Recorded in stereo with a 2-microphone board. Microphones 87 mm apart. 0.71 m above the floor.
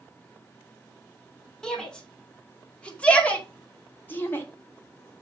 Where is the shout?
5° left (ahead or behind), 3 m; by 4.5 s 25° left (ahead or behind), 1.4 m.